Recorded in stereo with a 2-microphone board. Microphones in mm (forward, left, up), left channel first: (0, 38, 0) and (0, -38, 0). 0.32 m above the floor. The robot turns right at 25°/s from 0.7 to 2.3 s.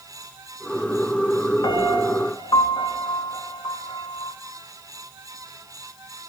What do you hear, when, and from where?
1.6 s a piano: 85° left, 0.7 m; by 4.3 s 75° left (ahead or behind), 0.7 m